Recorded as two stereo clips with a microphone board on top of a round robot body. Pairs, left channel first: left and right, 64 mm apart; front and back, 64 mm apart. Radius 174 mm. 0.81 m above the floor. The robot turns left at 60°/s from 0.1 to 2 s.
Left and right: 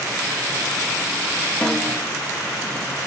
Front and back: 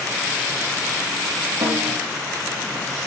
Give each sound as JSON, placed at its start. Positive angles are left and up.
{"t": 1.6, "sound": "a snare drum", "azimuth_deg": 165, "distance_m": 1.2}